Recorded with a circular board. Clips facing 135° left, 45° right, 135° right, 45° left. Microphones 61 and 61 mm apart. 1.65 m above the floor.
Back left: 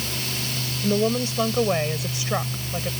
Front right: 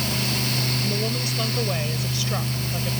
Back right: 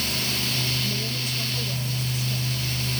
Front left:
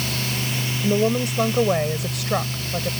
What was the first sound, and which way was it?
A woman speaking, 75° left.